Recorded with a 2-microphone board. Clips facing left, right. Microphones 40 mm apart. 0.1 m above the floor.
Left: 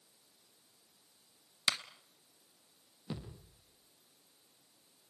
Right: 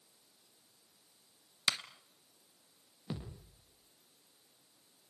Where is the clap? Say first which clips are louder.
Even; centre (ahead or behind), 1.3 m.